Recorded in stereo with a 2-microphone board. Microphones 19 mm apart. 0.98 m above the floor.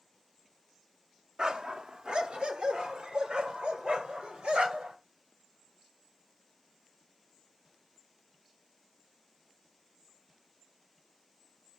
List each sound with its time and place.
1.4 s a dog barking: 50° right (ahead or behind), 0.8 m; by 5.0 s 75° right (ahead or behind), 3 m